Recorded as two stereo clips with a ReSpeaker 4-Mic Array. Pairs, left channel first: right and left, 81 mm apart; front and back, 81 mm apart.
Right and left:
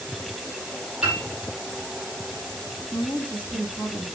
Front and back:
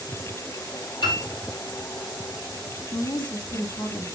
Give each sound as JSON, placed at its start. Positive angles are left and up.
{"t": 1.0, "sound": "a piano", "azimuth_deg": 15, "distance_m": 4.5}
{"t": 2.9, "sound": "a woman speaking", "azimuth_deg": 15, "distance_m": 5.5}